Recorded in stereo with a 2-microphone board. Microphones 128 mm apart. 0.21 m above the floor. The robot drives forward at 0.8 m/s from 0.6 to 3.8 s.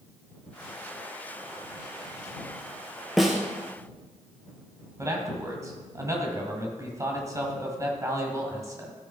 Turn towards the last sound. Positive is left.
turn(degrees=-25)  # may be behind; listen again after turning